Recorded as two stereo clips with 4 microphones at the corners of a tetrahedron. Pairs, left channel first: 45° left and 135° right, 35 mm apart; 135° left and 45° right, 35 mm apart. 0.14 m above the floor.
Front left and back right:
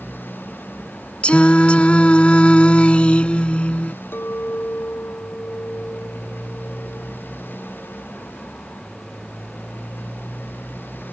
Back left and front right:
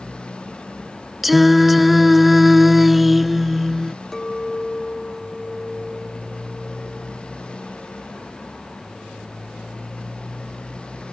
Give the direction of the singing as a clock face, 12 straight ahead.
11 o'clock.